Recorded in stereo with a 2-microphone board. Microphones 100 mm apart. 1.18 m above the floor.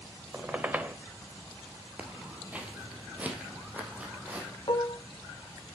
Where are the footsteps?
15° right (ahead or behind), 1.4 m; by 4.5 s 10° right (ahead or behind), 2.5 m.